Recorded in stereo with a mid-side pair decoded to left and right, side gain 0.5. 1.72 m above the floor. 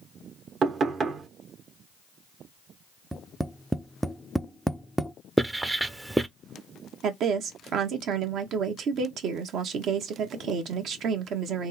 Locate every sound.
0.6 s knocking: 55° right, 1.3 m
3.1 s tapping: 5° right, 0.5 m
5.4 s writing: 15° right, 0.7 m
7.0 s a woman speaking: 65° right, 1.4 m